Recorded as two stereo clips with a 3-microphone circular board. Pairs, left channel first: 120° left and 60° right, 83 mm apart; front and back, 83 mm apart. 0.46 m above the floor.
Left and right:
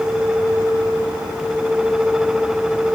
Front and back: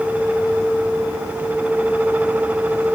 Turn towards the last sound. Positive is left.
No sound to turn to.